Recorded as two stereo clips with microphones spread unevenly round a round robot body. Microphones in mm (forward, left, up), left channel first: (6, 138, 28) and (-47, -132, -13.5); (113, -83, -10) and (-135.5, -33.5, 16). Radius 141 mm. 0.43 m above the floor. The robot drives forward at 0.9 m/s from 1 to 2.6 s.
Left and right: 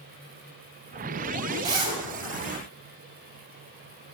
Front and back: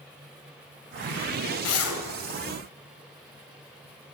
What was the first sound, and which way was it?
A zipper, 30° right.